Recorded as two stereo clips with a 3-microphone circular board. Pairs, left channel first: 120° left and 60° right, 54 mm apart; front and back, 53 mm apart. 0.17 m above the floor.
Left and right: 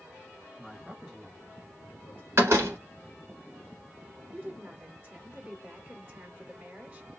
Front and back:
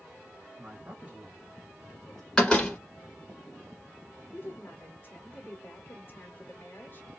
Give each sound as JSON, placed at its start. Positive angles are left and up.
{"t": 0.6, "sound": "a man speaking", "azimuth_deg": -150, "distance_m": 2.0}
{"t": 2.4, "sound": "a door slam", "azimuth_deg": -75, "distance_m": 1.6}
{"t": 4.3, "sound": "a woman speaking", "azimuth_deg": -25, "distance_m": 1.4}